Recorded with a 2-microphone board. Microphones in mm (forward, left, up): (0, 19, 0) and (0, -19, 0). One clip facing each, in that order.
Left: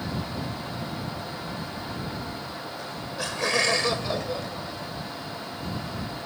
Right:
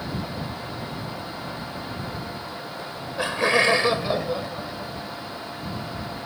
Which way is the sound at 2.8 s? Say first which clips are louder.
Right 6 dB; 25° right (ahead or behind).